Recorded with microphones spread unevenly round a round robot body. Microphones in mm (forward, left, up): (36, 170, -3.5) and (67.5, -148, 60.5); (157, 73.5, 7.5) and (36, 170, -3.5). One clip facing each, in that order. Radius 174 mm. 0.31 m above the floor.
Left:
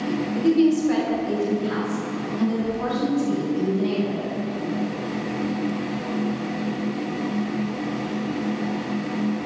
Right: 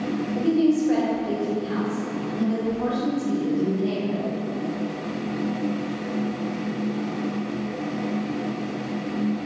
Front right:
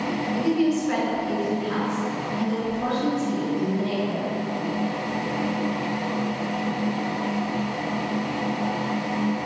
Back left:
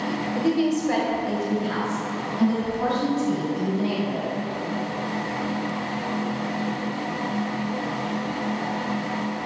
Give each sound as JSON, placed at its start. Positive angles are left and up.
{"t": 0.3, "sound": "a woman speaking", "azimuth_deg": 110, "distance_m": 1.3}